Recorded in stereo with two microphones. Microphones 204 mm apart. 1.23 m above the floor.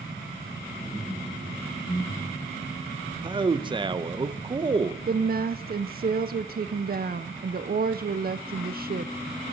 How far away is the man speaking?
About 0.7 m.